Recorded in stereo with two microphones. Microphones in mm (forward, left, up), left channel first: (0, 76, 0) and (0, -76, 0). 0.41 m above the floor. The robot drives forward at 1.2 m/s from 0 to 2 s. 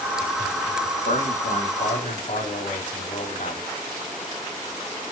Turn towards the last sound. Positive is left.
turn(degrees=55)  # may be behind; listen again after turning